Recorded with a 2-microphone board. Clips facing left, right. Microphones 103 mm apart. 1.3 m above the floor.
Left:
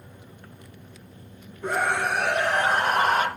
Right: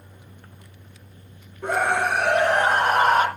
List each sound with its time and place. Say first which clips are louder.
1.6 s a scream: right 3 dB; 60° right (ahead or behind), 6 m; by 3.3 s 40° right (ahead or behind), 4.5 m